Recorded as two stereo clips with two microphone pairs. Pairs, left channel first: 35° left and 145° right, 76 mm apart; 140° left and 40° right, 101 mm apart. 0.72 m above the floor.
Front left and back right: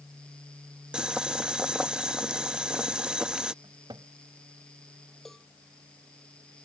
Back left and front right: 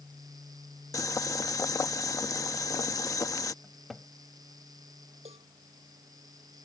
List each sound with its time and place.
0.9 s boiling: 145° left
3.6 s a cupboard door: 130° right
5.2 s a cowbell: 50° right